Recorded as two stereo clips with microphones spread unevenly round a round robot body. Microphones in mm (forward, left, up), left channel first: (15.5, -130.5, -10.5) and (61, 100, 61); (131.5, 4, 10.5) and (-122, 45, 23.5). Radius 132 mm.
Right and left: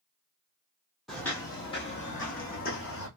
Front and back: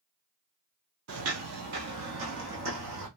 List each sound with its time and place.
1.1 s footsteps: 155° left, 0.9 m; by 3.1 s 160° right, 1.9 m